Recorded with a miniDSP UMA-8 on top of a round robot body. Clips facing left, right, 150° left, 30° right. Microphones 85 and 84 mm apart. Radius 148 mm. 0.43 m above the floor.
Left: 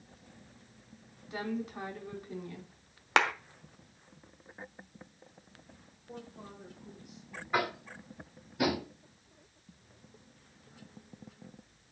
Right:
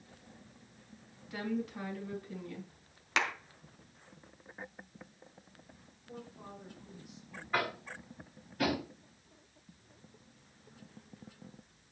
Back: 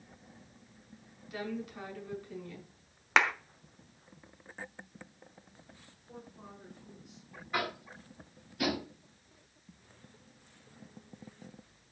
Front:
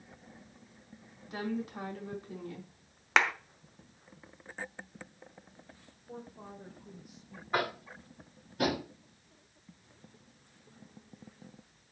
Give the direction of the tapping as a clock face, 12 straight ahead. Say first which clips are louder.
Left 2 dB, front 3 dB; 12 o'clock.